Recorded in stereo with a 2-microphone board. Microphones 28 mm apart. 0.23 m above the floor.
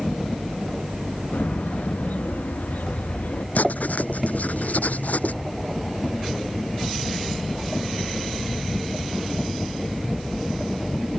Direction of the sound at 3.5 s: 80° left.